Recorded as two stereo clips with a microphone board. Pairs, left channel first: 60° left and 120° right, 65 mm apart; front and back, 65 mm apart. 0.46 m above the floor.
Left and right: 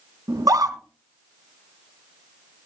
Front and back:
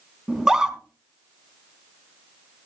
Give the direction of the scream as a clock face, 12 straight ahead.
3 o'clock.